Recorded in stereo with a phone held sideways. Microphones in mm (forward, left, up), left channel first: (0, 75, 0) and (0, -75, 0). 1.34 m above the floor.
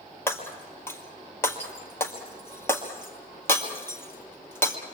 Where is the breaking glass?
15° left (ahead or behind), 2.5 m.